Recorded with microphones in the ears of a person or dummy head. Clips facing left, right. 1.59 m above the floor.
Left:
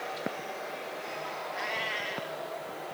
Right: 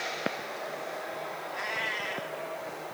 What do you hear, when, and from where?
1.5 s a cat meowing: 5° left (ahead or behind), 1.8 m